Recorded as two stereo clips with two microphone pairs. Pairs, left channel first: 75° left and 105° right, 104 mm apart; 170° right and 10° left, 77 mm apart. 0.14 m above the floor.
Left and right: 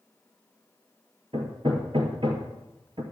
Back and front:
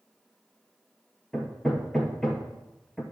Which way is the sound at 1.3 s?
85° right.